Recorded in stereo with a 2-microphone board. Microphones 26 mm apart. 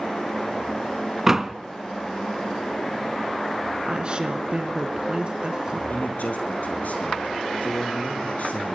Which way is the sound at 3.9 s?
35° right (ahead or behind).